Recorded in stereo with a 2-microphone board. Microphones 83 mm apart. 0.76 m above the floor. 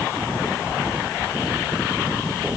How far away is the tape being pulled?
I don't hear tape being pulled.